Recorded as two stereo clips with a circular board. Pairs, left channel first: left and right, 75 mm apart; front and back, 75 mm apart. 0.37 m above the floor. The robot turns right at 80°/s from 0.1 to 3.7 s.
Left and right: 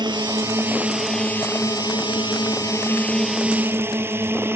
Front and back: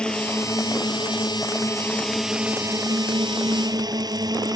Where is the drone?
80° right; by 4.6 s 150° right.